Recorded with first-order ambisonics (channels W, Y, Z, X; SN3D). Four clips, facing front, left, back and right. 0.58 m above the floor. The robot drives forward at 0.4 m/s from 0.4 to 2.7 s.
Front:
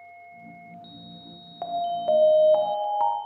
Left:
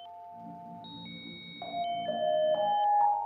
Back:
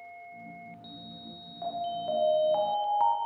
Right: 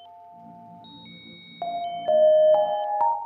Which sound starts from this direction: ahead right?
An alarm, at 1.6 s.